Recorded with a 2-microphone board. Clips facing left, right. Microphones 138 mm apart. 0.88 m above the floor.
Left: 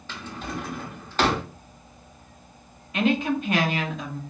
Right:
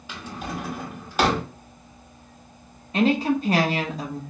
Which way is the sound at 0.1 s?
10° right (ahead or behind).